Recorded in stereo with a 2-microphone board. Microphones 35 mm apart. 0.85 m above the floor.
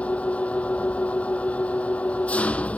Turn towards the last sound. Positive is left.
turn(degrees=35)  # may be behind; listen again after turning